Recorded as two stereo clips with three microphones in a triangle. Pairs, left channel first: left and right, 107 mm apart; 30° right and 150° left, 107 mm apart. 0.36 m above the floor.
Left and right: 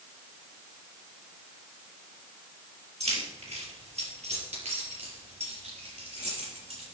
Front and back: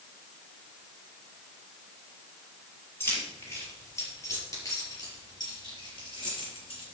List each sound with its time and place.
3.0 s keys jangling: 95° right, 5 m; by 7.0 s 65° right, 4.5 m